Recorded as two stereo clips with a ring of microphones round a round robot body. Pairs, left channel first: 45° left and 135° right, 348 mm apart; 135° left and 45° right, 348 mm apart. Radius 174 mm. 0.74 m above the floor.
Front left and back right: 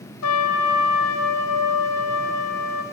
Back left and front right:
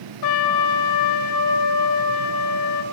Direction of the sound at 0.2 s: 95° left.